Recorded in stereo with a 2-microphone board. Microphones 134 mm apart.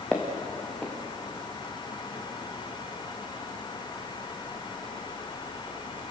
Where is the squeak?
No squeak in this recording.